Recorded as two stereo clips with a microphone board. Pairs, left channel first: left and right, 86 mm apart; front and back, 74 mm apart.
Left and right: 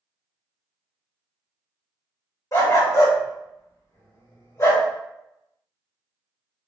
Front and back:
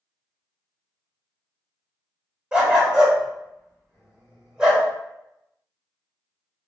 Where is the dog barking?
110° left, 1.3 m.